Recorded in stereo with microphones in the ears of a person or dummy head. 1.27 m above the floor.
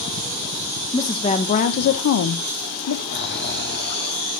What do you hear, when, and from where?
0.9 s a woman speaking: 20° left (ahead or behind), 0.8 m; by 3.0 s 80° left, 0.8 m
3.1 s snoring: 45° left (ahead or behind), 0.7 m